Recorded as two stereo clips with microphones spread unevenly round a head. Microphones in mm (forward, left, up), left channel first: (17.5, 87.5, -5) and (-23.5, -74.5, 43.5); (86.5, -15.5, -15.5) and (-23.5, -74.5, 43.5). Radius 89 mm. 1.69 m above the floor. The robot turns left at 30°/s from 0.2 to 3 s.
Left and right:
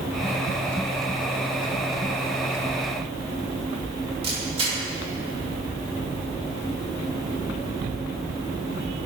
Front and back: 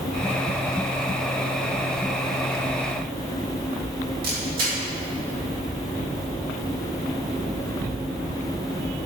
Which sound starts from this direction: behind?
A camera shutter, at 4.2 s.